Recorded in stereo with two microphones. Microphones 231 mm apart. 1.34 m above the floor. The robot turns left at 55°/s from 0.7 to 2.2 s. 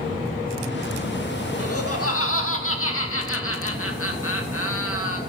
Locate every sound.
1.6 s laughter: 105° left, 2 m; by 5.2 s 70° left, 2 m